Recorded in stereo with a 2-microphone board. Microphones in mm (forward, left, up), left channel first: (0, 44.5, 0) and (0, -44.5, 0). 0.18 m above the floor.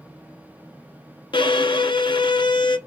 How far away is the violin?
About 0.5 m.